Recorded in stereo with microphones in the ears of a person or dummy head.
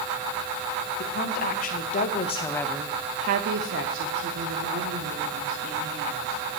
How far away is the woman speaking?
About 2.0 m.